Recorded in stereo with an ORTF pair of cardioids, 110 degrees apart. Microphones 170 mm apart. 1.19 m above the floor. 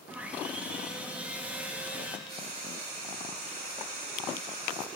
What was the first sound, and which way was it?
Sawing, 10° right.